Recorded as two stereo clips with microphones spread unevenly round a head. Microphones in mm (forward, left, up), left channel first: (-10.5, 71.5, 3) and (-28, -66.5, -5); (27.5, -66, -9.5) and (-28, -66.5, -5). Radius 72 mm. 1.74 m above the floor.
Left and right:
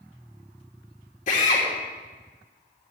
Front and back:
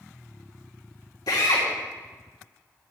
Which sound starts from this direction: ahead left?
A drill, at 1.3 s.